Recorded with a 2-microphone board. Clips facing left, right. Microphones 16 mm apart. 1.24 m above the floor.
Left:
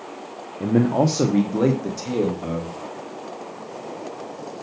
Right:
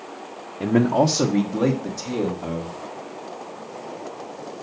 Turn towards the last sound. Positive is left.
turn(degrees=30)  # may be behind; listen again after turning